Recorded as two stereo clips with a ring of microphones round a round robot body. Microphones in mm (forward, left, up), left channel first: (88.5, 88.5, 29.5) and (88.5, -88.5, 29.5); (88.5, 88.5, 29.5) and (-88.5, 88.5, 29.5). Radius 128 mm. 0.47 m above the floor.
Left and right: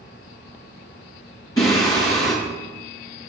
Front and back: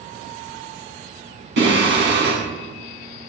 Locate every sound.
1.6 s singing: 165° left, 5.5 m